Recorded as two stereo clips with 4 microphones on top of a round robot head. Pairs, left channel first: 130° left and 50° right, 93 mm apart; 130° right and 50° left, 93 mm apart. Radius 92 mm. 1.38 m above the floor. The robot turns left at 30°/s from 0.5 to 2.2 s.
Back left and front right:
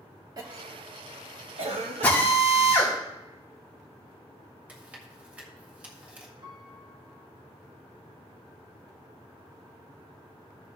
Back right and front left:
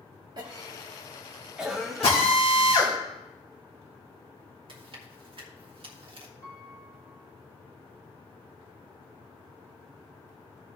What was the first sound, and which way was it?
A cough, straight ahead.